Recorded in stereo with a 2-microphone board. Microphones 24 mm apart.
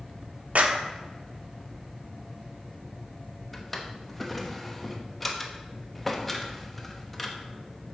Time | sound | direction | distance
0.6 | a clap | 65° right (ahead or behind) | 0.9 m
3.5 | a drawer | 5° left (ahead or behind) | 1.0 m